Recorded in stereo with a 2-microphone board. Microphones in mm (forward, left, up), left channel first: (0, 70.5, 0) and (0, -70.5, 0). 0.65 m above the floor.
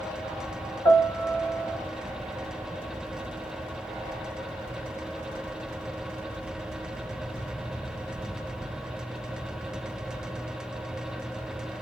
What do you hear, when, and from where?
0.8 s a piano: 25° left (ahead or behind), 2.5 m